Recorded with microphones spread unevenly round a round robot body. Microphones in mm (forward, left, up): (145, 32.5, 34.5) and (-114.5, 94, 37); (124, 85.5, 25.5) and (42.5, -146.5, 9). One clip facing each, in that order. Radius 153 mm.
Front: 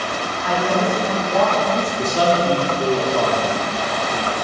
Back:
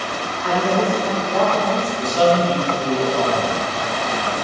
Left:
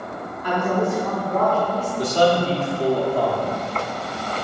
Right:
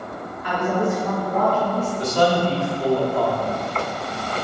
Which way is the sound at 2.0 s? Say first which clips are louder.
Back 3 dB, left 2 dB; 15° left.